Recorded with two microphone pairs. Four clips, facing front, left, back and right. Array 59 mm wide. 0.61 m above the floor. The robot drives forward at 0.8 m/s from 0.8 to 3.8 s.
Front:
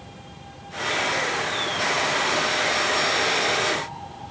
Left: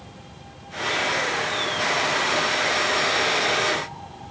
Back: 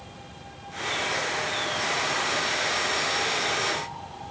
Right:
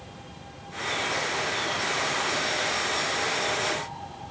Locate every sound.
Only background noise.